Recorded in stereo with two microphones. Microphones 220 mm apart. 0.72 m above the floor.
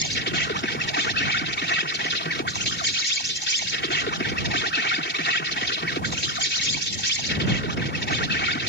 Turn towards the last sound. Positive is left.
turn(degrees=55)  # may be behind; listen again after turning